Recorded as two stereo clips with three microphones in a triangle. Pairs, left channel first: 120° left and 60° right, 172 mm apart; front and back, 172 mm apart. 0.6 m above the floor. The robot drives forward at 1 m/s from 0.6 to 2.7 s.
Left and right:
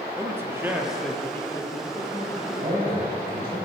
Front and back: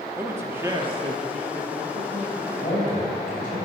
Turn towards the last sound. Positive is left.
turn(degrees=-35)